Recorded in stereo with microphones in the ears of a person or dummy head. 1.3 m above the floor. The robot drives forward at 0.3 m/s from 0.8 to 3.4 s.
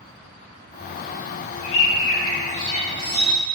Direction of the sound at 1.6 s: 70° left (ahead or behind).